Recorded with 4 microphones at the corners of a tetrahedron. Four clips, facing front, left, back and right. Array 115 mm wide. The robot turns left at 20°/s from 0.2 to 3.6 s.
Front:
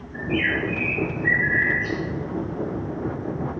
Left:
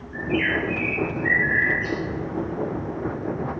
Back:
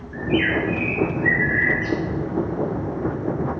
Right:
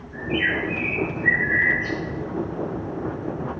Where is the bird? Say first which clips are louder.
Left 1 dB, back 3 dB; 170° right, 6 m; by 2.0 s 155° left, 6 m.